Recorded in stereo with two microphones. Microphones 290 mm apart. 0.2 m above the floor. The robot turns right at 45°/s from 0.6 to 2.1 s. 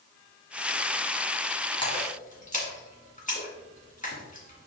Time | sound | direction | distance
1.8 | a splash | 15° left (ahead or behind) | 2 m